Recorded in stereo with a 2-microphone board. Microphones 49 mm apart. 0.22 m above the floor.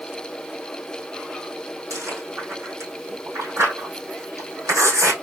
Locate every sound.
1.9 s chewing: 75° right (ahead or behind), 3.5 m